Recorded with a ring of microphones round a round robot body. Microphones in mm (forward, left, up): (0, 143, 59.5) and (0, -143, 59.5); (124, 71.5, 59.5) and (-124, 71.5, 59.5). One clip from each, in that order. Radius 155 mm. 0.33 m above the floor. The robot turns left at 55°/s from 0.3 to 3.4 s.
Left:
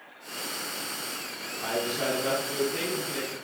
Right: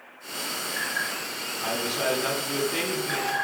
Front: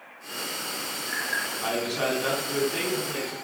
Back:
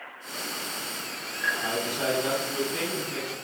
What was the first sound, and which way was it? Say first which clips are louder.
A man speaking: right 1 dB, front 1 dB; 5° right.